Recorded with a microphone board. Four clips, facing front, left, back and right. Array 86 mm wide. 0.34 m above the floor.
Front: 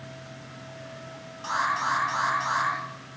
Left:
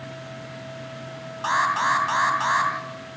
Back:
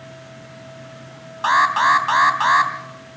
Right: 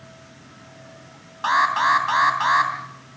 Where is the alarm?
165° right, 3 m.